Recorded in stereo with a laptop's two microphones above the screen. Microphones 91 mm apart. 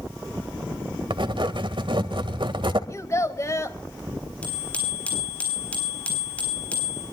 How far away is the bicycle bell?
About 8 m.